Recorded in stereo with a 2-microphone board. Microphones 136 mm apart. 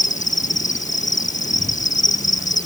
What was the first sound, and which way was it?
An insect, 70° left (ahead or behind).